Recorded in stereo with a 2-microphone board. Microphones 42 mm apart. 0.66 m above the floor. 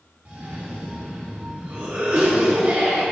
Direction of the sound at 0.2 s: 40° right (ahead or behind).